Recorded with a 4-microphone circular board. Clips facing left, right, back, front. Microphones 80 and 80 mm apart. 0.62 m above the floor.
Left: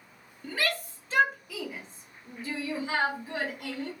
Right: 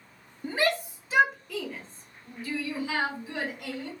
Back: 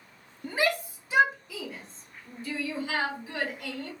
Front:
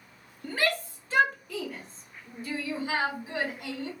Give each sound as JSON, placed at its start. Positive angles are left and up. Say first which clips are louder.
{"t": 0.4, "sound": "a shout", "louder": "right 5 dB, back 1 dB", "azimuth_deg": -125, "distance_m": 1.4}